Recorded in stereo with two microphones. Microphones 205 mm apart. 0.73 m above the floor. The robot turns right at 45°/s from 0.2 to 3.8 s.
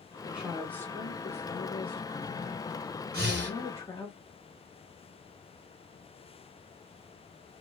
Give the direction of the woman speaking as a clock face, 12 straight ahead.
12 o'clock.